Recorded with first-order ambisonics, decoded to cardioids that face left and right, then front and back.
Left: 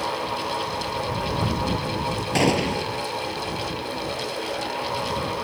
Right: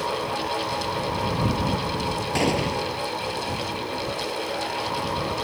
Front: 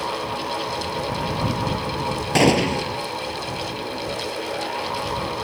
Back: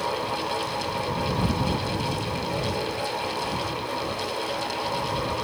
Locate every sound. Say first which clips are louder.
2.4 s a gunshot: left 3 dB, front 9 dB; 10° left